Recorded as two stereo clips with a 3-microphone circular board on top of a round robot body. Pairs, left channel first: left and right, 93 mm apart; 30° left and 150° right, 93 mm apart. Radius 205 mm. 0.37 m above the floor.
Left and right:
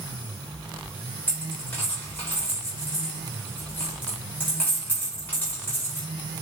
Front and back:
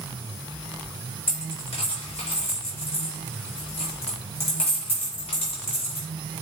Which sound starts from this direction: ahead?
A dropped coin, at 1.3 s.